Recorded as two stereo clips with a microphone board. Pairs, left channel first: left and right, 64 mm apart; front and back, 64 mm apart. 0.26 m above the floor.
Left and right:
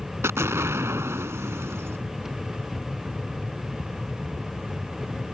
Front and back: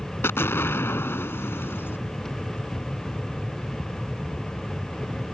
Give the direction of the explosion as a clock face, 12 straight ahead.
2 o'clock.